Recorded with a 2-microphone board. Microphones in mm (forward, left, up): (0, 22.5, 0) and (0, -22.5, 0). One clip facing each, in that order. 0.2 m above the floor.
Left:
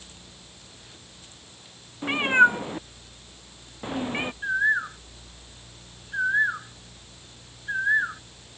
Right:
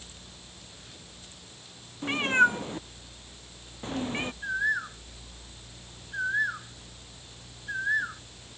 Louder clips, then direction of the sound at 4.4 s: Left 6 dB; 20° left (ahead or behind).